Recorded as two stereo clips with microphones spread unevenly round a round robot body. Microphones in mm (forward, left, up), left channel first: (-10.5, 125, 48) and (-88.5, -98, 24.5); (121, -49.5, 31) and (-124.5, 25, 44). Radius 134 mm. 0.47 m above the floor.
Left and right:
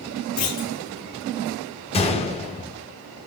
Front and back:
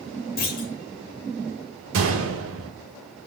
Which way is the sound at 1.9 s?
135° left.